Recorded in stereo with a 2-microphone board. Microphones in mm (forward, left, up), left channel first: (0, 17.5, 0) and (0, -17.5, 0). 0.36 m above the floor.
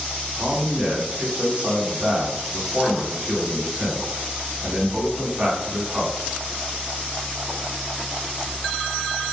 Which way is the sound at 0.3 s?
35° right (ahead or behind).